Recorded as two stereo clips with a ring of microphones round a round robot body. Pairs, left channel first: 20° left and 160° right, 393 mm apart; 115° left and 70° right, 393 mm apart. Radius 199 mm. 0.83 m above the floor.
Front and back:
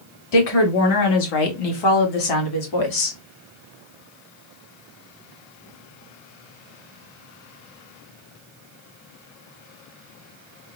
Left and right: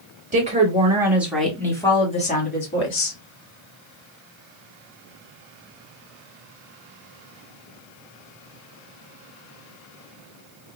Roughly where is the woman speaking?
Ahead.